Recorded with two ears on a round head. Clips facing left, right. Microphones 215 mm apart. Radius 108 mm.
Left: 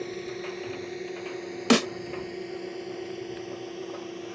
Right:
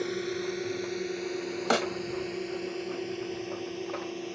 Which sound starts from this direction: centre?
A drone, at 0.0 s.